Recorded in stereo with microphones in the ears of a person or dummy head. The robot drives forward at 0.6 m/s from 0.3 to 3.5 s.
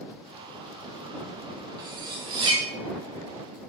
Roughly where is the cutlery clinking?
Centre.